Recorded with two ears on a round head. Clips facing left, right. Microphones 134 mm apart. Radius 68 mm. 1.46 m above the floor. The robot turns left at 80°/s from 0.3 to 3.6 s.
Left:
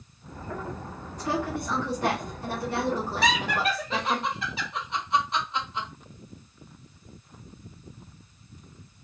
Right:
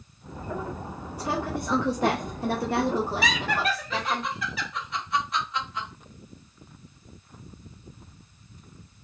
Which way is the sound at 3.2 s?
5° right (ahead or behind).